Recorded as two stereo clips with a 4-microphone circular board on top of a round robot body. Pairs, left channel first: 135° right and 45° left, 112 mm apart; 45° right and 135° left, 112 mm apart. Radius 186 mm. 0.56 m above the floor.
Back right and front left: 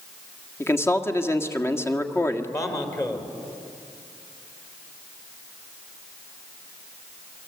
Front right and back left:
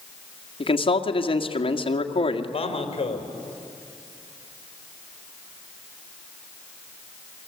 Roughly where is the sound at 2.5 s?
Right.